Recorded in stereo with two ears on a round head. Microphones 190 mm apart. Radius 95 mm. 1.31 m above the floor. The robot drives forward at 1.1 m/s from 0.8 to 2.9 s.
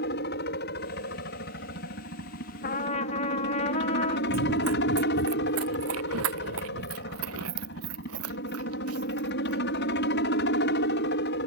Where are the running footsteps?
75° right (ahead or behind); by 9.6 s 85° right.